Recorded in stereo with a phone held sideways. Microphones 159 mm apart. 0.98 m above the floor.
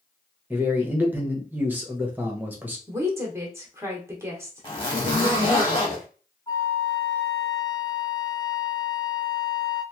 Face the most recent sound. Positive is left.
turn(degrees=25)  # may be behind; listen again after turning